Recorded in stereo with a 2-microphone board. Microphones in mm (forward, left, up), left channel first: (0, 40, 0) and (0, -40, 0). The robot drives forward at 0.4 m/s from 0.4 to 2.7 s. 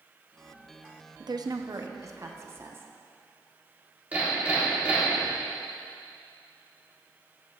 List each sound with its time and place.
1.2 s a woman speaking: 65° right (ahead or behind), 0.6 m; by 2.9 s 30° right (ahead or behind), 1.0 m
4.1 s hammering: 20° right (ahead or behind), 3 m